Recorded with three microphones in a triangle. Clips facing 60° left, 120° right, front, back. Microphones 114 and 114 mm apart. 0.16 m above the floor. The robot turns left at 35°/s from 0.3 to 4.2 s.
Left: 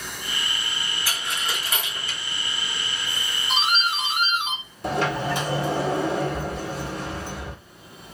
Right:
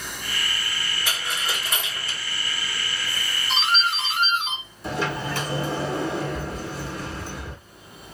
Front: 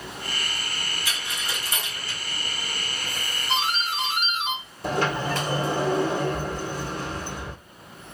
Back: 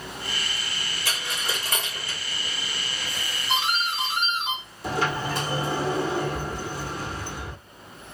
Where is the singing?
No singing in this recording.